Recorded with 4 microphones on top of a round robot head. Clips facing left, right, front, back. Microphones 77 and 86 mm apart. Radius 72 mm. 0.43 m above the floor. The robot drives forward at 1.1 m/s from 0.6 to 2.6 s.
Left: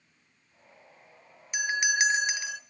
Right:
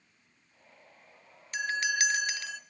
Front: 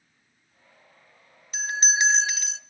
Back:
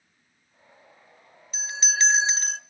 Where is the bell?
15° left, 0.8 m; by 2.6 s 165° left, 0.7 m.